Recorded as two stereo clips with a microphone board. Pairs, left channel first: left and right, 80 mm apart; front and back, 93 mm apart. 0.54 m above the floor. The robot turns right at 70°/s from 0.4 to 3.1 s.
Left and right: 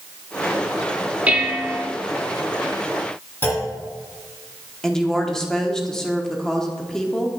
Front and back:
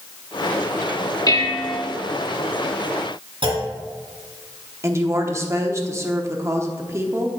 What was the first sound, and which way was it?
Dishes clattering, 25° right.